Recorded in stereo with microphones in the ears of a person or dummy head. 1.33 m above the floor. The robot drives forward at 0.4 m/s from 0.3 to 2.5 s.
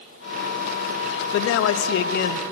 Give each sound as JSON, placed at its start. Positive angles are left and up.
{"t": 1.3, "sound": "a man speaking", "side_deg": 70, "distance_m": 0.5}